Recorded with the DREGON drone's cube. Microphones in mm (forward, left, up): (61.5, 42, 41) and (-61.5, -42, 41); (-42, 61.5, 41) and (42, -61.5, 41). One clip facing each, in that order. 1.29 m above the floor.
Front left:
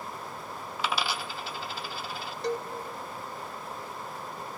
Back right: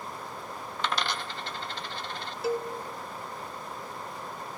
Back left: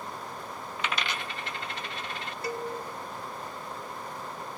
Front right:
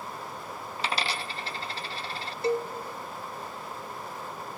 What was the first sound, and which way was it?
A dropped coin, 45° right.